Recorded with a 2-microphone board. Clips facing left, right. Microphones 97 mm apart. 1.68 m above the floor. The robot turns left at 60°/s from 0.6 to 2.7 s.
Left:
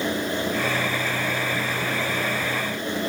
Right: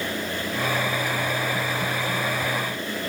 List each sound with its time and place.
Only background noise.